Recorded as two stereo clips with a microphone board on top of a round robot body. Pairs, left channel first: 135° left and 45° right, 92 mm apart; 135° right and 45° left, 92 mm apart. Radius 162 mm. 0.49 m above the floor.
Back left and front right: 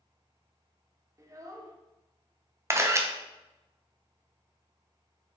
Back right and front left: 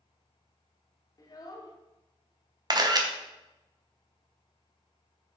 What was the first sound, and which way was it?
A child speaking, 95° right.